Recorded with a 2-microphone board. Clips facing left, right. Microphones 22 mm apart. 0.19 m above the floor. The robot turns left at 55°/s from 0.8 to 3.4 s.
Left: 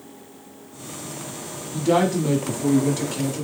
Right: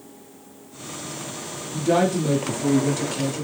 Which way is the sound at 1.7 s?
90° left.